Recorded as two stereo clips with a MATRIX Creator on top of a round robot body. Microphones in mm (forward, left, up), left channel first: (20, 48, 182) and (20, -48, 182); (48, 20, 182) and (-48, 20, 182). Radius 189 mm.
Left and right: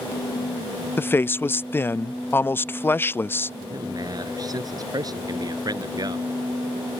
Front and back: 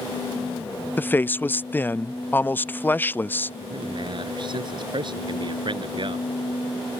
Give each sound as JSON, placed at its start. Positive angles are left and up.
{"t": 1.0, "sound": "a man speaking", "azimuth_deg": 45}
{"t": 3.6, "sound": "a man speaking", "azimuth_deg": -140}